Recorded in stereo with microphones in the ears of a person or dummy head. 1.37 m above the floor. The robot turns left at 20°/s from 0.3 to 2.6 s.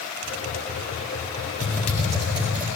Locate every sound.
1.6 s typing on a keyboard: 10° left (ahead or behind), 6 m; by 2.7 s 10° right (ahead or behind), 6 m